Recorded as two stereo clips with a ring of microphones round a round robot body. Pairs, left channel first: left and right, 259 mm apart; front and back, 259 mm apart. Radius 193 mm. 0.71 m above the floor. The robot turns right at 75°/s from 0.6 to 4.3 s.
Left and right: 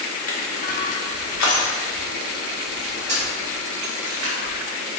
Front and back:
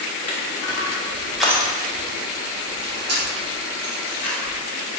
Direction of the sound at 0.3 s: 30° left.